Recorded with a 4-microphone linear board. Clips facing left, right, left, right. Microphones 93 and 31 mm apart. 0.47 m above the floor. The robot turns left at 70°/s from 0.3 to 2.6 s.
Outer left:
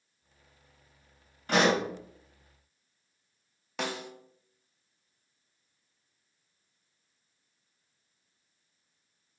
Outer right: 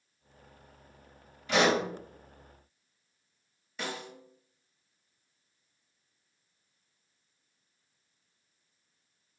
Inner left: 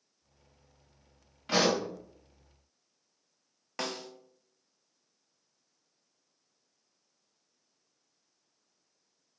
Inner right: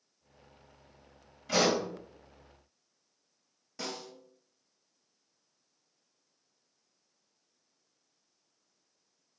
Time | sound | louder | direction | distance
1.5 | a pop | outer left 1 dB, even | 45° left (ahead or behind) | 1.5 m
3.8 | a snare drum | outer left 3 dB, inner left 3 dB | 70° left (ahead or behind) | 0.7 m